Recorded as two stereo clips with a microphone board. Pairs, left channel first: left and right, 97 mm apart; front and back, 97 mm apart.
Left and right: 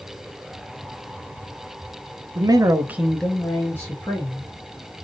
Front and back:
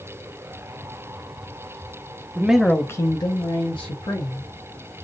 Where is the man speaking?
110° right, 0.7 m; by 4.5 s 30° left, 1.7 m.